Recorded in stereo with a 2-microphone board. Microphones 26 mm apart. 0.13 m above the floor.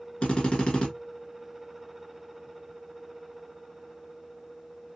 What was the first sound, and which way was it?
A drill, 45° left (ahead or behind).